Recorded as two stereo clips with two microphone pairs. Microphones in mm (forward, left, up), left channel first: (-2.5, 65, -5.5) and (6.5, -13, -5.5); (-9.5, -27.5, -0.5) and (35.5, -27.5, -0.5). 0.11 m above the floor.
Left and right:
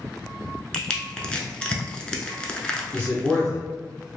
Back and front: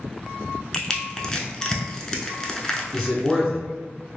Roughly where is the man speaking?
Left.